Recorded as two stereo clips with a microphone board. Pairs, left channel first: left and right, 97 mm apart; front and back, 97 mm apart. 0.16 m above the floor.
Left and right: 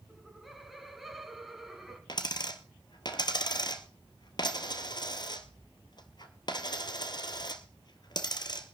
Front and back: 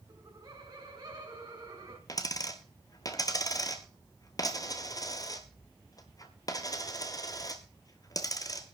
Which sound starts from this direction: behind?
Laughter, at 0.1 s.